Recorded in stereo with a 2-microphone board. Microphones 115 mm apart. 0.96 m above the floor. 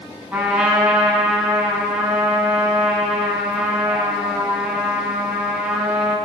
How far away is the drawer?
I don't hear a drawer.